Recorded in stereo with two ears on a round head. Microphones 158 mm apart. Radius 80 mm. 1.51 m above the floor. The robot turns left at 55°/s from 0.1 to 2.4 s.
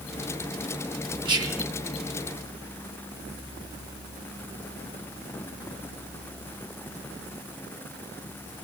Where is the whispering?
30° right (ahead or behind), 1.3 m; by 1.7 s 5° right (ahead or behind), 1.3 m.